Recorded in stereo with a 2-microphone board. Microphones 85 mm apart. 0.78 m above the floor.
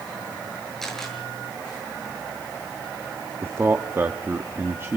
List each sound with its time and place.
0.8 s a camera shutter: 5° left (ahead or behind), 8 m
3.4 s a man speaking: 30° right (ahead or behind), 1.1 m